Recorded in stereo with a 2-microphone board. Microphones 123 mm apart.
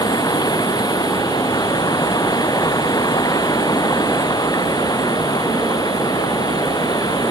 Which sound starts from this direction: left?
Running water, at 0.0 s.